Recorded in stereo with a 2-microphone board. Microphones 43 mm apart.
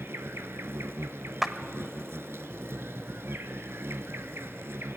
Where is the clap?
5° right (ahead or behind), 0.8 m.